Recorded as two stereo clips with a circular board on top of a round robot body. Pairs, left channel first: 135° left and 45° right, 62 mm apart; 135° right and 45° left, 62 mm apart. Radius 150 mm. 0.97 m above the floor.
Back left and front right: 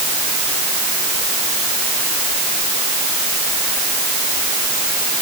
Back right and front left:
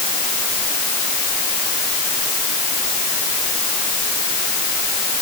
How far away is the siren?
No siren in this recording.